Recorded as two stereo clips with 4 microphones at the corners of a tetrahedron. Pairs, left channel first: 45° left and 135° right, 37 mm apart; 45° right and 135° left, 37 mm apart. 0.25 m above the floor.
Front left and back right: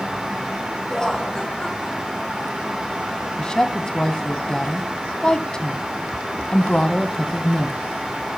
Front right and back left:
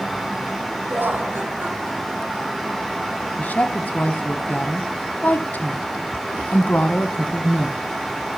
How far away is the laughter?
About 4.5 m.